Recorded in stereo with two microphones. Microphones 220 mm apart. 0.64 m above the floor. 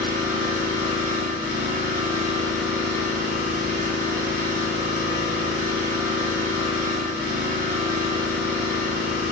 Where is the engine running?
40° right (ahead or behind), 0.9 m.